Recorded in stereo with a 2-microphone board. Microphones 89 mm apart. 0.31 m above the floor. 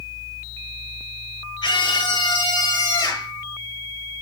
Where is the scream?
50° left (ahead or behind), 5.5 m; by 3.3 s 25° left (ahead or behind), 6 m.